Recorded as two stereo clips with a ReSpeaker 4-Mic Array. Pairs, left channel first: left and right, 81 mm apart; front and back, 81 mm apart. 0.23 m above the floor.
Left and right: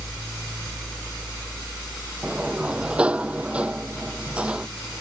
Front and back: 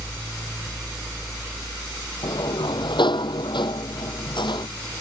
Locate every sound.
2.2 s a sliding door: 15° right